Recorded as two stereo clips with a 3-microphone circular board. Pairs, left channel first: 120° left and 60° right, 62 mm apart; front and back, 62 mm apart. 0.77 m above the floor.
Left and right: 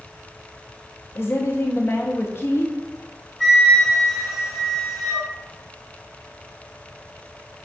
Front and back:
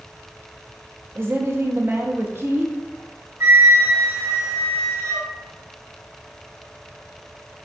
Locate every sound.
1.1 s a woman speaking: 150° left, 0.5 m
3.4 s a flute: 140° right, 1.1 m